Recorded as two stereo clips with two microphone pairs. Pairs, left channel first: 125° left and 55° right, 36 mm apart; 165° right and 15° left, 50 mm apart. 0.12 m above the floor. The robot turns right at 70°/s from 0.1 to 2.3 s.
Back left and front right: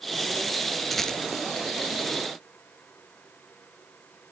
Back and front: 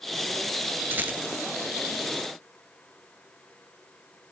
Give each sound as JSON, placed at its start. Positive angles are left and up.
{"t": 0.9, "sound": "a rattle", "azimuth_deg": 40, "distance_m": 0.5}